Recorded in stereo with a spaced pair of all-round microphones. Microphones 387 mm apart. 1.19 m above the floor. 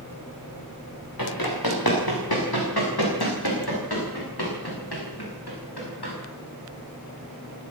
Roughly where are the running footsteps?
Left.